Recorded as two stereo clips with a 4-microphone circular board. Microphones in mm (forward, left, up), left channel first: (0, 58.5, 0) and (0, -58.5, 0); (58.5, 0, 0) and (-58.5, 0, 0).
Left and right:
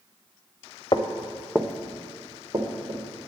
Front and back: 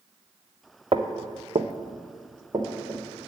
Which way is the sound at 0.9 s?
135° left.